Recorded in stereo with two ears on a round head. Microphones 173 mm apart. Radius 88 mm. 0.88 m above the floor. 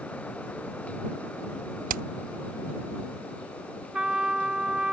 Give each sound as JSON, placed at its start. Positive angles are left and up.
{"t": 1.9, "sound": "hammering", "side_deg": -45}
{"t": 3.9, "sound": "a trumpet", "side_deg": -5}